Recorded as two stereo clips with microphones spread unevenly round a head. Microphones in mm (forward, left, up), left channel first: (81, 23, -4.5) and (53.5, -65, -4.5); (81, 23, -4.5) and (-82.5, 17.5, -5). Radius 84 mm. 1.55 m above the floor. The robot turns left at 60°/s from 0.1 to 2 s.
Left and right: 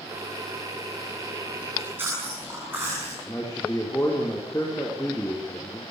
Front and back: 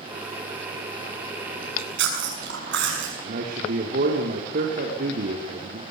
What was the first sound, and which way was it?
Chewing, 160° right.